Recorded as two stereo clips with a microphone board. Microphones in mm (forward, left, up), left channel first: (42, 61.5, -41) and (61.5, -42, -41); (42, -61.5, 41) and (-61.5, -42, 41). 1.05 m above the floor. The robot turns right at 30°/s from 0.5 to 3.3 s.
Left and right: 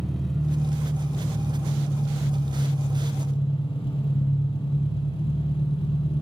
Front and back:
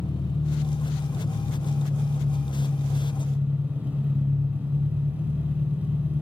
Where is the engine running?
15° left, 1.4 m; by 6.2 s 95° left, 1.4 m.